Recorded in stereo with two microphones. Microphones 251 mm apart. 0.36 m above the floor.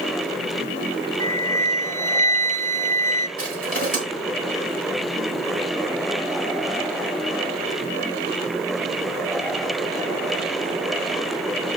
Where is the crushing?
65° right (ahead or behind), 4.5 m.